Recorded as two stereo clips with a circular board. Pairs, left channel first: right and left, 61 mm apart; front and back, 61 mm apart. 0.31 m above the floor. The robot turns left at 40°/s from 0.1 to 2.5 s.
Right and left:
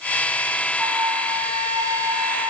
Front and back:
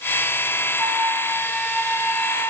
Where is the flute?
120° left, 2.5 m; by 2.5 s 50° left, 2.5 m.